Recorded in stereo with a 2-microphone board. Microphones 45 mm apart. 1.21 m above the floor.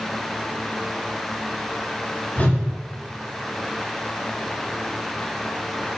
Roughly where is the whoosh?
Left.